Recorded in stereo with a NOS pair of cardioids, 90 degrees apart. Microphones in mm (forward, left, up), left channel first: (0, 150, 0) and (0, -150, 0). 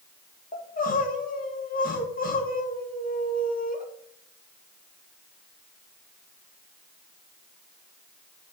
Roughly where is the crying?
Ahead left.